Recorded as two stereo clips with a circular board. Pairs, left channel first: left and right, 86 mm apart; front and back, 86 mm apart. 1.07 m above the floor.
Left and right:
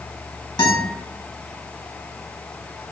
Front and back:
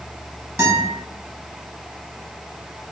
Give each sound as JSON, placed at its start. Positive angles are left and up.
{"t": 0.6, "sound": "a guitar", "azimuth_deg": 125, "distance_m": 3.5}